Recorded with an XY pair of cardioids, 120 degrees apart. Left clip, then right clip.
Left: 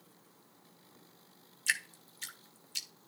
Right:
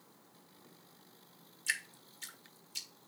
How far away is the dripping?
About 1.4 m.